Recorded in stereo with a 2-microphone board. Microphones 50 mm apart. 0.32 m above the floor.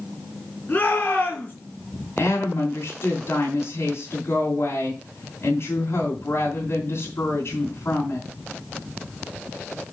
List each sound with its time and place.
0.7 s a shout: 30° left (ahead or behind), 3.5 m
2.2 s a woman speaking: 60° left (ahead or behind), 3 m